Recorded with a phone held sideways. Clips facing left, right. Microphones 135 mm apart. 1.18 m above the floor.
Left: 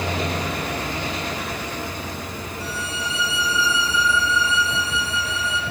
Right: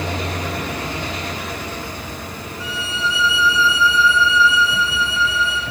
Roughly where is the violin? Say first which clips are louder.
Right 6 dB; left.